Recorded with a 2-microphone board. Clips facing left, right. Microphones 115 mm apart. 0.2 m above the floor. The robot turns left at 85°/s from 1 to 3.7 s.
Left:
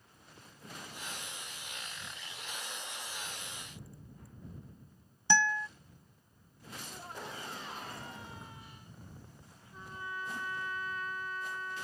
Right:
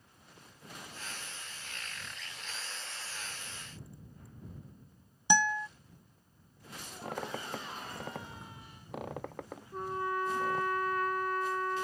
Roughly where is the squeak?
Right.